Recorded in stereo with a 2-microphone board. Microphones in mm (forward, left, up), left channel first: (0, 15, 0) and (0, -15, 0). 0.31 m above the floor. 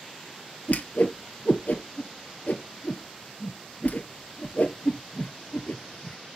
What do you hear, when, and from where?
0.7 s a whoosh: 65° left (ahead or behind), 1.1 m